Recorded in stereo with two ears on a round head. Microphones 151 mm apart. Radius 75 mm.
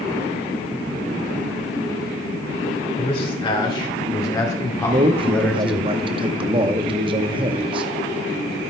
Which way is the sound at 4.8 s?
30° right (ahead or behind).